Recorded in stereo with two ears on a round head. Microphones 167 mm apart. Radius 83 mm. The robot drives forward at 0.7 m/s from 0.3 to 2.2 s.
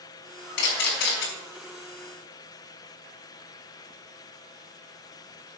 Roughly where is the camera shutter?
Left.